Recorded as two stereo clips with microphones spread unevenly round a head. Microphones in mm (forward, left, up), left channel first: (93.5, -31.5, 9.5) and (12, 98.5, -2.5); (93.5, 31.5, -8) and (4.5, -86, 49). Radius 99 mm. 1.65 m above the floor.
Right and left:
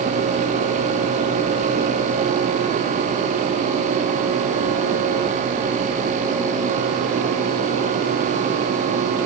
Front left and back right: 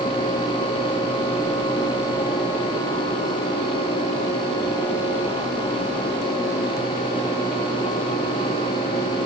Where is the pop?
No pop in this recording.